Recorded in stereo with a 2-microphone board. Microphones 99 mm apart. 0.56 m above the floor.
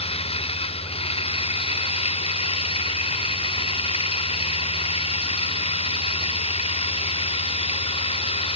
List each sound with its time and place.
0.0 s running water: 85° left